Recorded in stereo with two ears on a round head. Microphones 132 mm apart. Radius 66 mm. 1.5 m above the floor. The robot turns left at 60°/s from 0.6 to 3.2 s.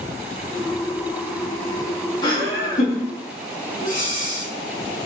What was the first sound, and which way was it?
Laughter, 155° left.